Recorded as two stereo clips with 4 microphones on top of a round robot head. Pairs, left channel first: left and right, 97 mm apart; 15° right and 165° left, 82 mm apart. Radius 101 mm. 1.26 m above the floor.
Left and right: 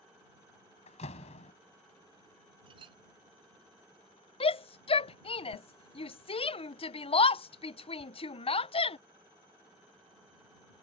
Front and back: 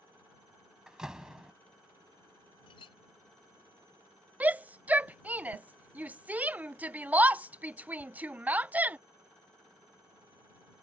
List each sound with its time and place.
0.9 s a door slam: 85° left
2.7 s a clink: 45° right
4.4 s a shout: 95° left